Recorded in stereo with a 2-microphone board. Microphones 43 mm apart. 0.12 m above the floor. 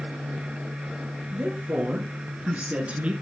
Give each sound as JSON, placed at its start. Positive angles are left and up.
{"t": 1.3, "sound": "a woman speaking", "side_deg": -25, "distance_m": 2.0}